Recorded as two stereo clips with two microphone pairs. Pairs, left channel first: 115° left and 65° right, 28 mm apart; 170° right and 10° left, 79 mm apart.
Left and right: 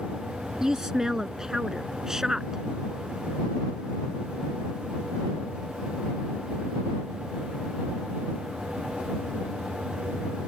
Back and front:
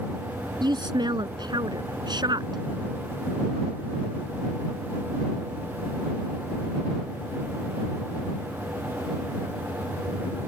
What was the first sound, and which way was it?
A woman speaking, 10° left.